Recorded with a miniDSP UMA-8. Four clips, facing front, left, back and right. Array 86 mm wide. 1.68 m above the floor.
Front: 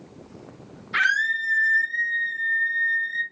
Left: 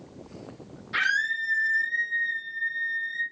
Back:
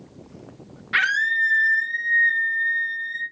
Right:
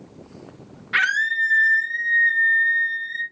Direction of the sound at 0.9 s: 135° right.